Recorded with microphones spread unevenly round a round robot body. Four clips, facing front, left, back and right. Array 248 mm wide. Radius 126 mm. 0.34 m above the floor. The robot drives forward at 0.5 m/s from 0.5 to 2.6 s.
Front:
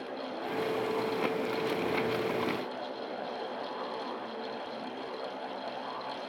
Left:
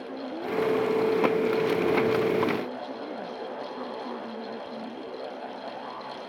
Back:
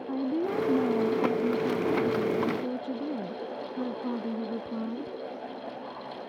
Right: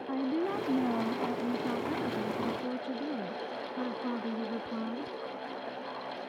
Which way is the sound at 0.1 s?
155° right.